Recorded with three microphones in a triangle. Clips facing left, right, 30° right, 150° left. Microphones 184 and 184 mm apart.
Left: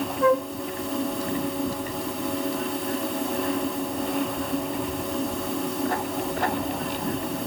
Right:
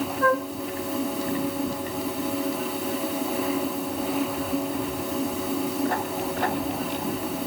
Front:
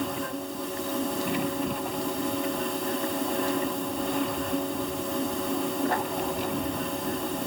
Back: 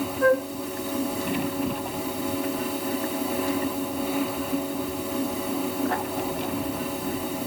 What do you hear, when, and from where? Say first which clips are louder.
0.2 s a flute: left 3 dB, back 13 dB; 165° left